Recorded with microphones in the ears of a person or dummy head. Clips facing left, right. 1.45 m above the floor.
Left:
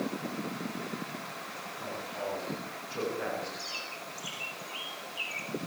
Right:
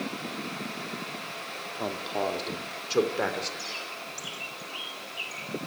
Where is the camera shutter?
I don't hear a camera shutter.